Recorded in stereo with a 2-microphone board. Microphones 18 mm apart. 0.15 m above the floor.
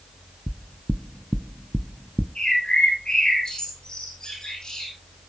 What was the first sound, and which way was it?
Knocking, centre (ahead or behind).